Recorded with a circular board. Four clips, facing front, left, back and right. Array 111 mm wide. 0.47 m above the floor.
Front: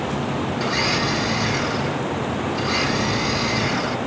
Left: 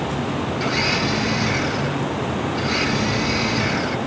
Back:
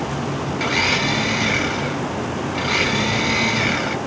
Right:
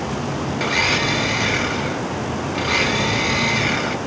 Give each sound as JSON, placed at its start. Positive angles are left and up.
{"t": 0.6, "sound": "a blender", "azimuth_deg": -140, "distance_m": 1.3}